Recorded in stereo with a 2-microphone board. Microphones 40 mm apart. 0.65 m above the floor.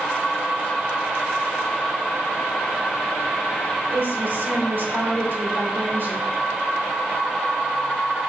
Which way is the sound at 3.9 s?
60° right (ahead or behind).